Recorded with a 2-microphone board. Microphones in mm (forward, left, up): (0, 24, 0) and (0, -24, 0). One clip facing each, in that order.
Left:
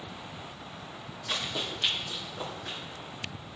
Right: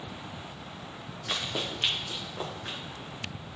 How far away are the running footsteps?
About 1.9 m.